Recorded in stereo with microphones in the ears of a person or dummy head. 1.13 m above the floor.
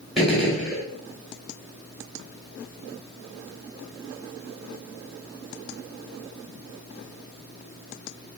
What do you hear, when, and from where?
0.2 s a gunshot: centre (ahead or behind), 2.5 m